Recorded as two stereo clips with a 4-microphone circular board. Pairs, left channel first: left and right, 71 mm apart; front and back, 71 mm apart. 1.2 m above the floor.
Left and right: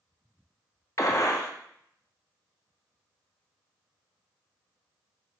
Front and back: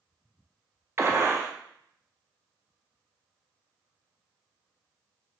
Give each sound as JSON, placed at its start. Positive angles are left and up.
{"t": 1.0, "sound": "a gunshot", "azimuth_deg": 125, "distance_m": 0.5}